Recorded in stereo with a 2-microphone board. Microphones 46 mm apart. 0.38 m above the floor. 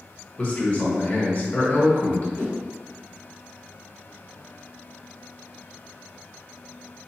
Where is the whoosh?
60° left (ahead or behind), 0.8 m.